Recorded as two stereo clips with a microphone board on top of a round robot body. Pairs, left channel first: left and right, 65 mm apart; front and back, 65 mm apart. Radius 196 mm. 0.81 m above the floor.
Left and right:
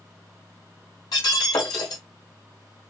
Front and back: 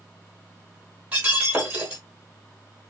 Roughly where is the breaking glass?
Left.